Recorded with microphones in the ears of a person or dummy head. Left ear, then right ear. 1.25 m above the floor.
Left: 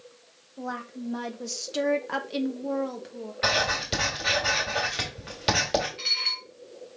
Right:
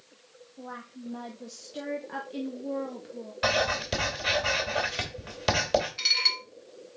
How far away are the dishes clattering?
About 1.3 m.